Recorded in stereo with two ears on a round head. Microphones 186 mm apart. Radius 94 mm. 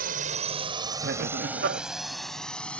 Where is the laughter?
50° right (ahead or behind).